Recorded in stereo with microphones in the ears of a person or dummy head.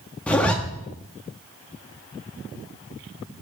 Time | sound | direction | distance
0.3 | a zipper | 5° left (ahead or behind) | 0.6 m